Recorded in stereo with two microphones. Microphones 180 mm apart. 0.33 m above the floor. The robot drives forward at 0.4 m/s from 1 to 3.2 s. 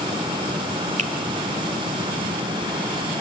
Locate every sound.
1.0 s a finger snap: 45° right (ahead or behind), 1.1 m